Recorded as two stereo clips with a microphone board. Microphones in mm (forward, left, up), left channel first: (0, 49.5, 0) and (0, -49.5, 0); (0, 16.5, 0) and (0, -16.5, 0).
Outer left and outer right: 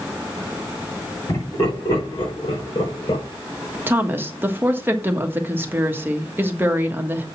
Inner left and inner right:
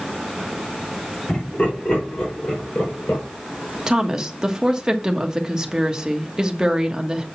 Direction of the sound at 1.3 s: 55° left (ahead or behind).